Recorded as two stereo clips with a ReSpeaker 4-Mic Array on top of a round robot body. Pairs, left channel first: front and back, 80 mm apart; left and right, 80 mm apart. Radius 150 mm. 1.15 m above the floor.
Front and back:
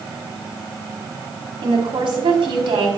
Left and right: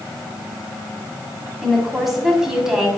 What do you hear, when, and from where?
1.6 s a woman speaking: straight behind, 3.5 m; by 2.9 s 170° right, 4 m